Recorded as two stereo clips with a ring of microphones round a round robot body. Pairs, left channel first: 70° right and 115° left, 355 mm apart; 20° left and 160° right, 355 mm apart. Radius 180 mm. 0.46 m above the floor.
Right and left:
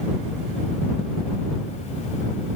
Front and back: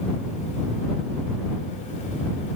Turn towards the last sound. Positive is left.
No sound to turn to.